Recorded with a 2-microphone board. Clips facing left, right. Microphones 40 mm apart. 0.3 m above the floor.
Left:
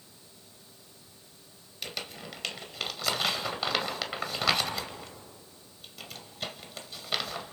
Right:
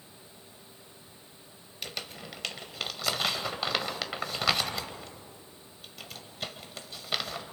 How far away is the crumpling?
About 1.7 m.